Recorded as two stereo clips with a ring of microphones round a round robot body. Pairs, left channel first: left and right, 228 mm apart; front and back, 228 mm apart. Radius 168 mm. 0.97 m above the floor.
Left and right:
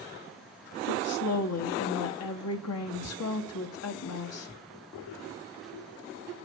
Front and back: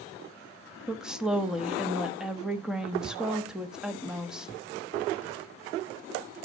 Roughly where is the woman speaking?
Left.